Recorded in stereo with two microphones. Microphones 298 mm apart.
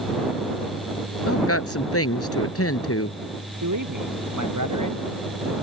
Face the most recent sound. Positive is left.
turn(degrees=-85)